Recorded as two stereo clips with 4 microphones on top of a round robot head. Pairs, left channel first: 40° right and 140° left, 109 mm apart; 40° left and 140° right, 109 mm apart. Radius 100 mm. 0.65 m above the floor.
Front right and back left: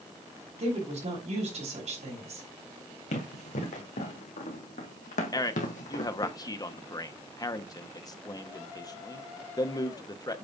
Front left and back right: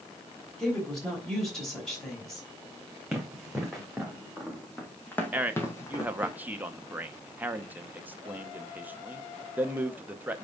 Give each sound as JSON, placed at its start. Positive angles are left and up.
{"t": 0.6, "sound": "a woman speaking", "azimuth_deg": 125, "distance_m": 3.5}
{"t": 3.1, "sound": "running footsteps", "azimuth_deg": -55, "distance_m": 2.5}
{"t": 5.3, "sound": "a man speaking", "azimuth_deg": -70, "distance_m": 0.9}